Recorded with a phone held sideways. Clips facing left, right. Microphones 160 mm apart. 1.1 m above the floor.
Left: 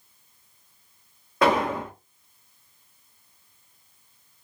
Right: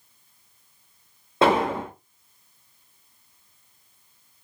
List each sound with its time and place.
1.4 s an explosion: 25° right (ahead or behind), 0.7 m